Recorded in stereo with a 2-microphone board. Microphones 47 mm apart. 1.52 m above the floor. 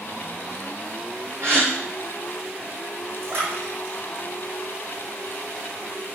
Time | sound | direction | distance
1.4 | a gasp | 55° right (ahead or behind) | 5.5 m
3.2 | a splash | 55° right (ahead or behind) | 5 m